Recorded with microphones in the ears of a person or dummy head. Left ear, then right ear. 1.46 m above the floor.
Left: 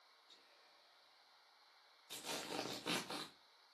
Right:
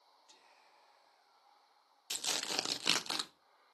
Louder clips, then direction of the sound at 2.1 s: Right 9 dB; 55° right (ahead or behind).